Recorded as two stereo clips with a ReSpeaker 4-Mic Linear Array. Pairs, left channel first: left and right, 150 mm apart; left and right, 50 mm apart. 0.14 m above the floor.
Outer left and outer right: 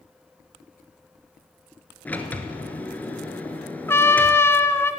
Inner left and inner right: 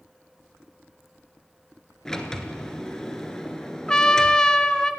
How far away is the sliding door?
About 1.9 m.